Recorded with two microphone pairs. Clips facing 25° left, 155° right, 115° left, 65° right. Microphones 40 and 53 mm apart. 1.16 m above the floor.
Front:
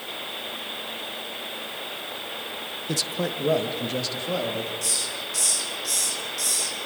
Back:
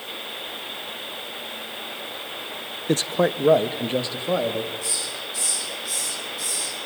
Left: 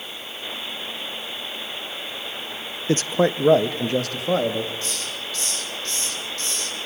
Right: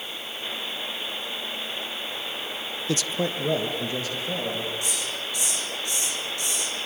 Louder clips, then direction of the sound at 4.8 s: Even, even; 10° left.